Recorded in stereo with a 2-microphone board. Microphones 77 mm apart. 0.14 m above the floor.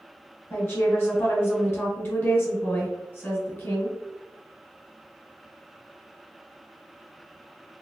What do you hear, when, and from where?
0.5 s a woman speaking: 30° left (ahead or behind), 1.4 m